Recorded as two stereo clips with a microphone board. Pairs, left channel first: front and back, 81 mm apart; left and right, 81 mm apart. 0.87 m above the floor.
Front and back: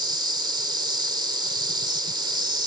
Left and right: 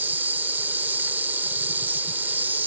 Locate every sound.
0.0 s an insect: 155° right